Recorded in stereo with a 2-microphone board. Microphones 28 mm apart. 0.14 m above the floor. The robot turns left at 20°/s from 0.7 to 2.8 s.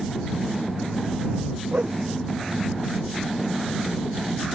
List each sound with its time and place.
1.7 s a whoosh: 80° right; by 2.0 s 75° right (ahead or behind)